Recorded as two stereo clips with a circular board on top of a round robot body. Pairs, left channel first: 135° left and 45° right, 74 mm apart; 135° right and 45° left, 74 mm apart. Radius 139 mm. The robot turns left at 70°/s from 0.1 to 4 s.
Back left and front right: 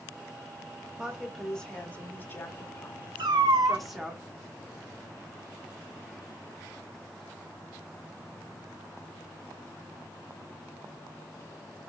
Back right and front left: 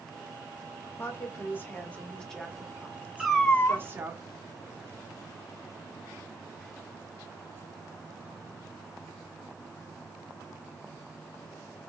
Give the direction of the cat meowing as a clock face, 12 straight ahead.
1 o'clock.